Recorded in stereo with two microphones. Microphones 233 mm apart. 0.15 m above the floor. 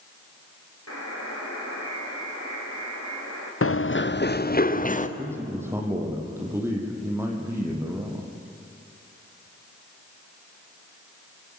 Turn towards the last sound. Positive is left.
turn(degrees=-10)  # may be behind; listen again after turning